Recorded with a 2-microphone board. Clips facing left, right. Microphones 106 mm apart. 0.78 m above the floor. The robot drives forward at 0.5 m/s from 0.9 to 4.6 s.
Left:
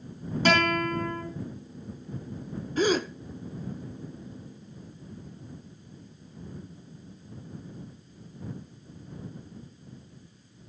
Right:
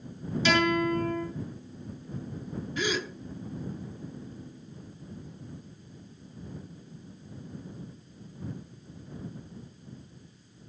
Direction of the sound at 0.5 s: 45° left (ahead or behind).